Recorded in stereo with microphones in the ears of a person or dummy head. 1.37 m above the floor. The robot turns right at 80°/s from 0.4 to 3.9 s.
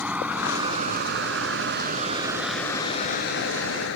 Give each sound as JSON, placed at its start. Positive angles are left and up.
{"t": 0.0, "sound": "a vehicle", "side_deg": -5}